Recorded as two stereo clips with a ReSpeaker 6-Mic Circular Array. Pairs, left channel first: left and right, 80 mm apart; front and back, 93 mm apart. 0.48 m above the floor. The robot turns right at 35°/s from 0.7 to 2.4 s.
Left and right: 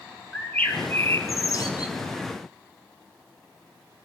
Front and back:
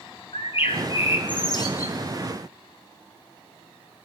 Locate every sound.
0.3 s a bird: 15° left, 2 m; by 1.9 s 60° left, 2 m